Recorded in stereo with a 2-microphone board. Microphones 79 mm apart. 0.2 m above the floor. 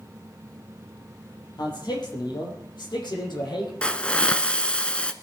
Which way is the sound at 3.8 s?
15° left (ahead or behind).